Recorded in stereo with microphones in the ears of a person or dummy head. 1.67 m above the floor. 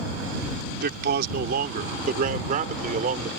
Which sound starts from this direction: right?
A man speaking, at 0.8 s.